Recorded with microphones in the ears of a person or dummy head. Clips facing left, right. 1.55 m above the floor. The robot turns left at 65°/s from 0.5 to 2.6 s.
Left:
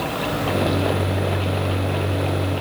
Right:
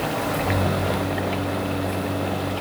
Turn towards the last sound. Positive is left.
No sound to turn to.